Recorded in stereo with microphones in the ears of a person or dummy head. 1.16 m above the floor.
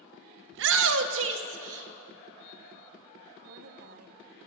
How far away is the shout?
About 1.0 m.